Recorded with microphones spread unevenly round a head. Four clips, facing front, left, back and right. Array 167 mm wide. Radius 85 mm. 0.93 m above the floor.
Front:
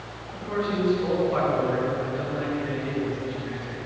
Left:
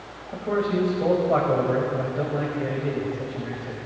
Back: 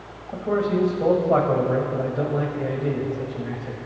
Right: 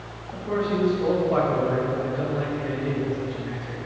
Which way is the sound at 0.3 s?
155° left.